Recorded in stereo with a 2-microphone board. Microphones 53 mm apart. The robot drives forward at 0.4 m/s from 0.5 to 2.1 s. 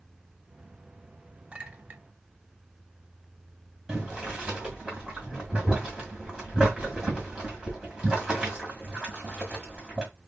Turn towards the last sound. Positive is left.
turn(degrees=-10)  # may be behind; listen again after turning